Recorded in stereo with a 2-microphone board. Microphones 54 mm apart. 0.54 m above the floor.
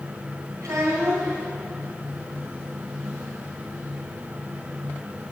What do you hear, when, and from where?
0.6 s a child speaking: 80° right, 3 m